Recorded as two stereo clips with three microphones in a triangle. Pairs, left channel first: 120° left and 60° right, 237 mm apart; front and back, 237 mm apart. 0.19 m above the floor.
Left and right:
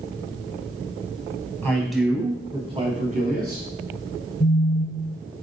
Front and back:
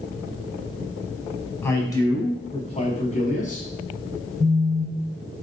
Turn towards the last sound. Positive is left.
turn(degrees=115)